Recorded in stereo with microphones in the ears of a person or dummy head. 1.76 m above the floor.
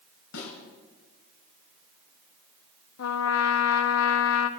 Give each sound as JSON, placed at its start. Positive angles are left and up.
{"t": 0.3, "sound": "a snare drum", "side_deg": 75, "distance_m": 5.5}
{"t": 3.0, "sound": "a trumpet", "side_deg": 75, "distance_m": 0.8}